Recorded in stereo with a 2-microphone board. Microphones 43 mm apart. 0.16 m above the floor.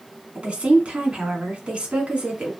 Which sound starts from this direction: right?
A woman speaking, at 0.3 s.